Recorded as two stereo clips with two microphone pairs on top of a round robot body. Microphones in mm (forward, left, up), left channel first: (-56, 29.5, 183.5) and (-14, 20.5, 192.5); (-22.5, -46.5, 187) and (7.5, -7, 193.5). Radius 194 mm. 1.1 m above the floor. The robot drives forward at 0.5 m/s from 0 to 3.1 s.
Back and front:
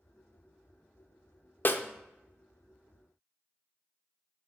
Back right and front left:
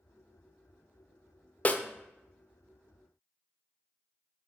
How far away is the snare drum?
About 0.7 m.